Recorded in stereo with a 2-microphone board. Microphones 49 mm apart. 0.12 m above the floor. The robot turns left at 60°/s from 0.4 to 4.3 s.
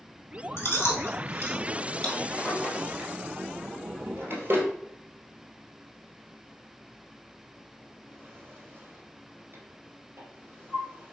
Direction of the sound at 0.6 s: 60° left (ahead or behind).